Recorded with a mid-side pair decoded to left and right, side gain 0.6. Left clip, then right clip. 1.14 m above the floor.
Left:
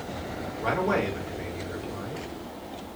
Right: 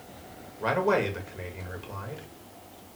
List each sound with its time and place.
0.6 s a man speaking: 20° right, 1.5 m